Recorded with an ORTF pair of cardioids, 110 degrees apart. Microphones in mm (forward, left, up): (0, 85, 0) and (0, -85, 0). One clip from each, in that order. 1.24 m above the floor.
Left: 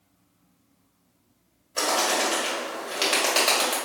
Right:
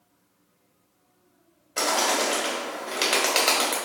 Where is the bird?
15° right, 1.4 m.